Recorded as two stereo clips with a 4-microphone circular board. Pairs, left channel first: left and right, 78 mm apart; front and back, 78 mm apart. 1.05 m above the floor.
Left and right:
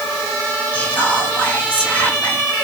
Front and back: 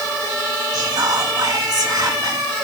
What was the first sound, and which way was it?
Whispering, 155° left.